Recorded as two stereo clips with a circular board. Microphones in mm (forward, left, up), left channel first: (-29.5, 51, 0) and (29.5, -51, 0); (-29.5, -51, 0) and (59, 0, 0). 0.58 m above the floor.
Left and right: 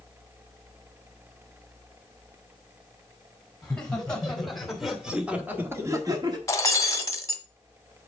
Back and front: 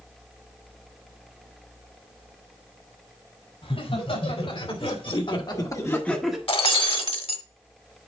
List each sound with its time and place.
3.6 s laughter: 160° right, 4 m; by 6.4 s 55° right, 1.5 m
6.5 s breaking glass: 175° right, 1.3 m